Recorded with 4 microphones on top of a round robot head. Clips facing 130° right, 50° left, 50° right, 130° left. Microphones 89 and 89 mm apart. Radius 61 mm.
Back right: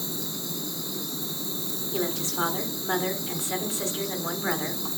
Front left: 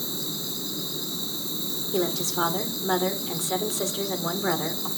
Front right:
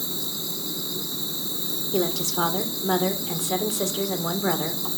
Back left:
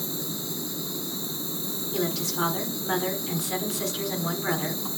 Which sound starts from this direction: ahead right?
An insect, at 0.0 s.